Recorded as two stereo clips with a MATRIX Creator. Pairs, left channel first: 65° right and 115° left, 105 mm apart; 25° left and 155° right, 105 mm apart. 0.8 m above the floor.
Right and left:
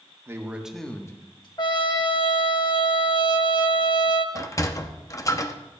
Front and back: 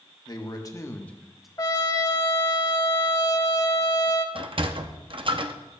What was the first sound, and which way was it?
A man speaking, 55° left.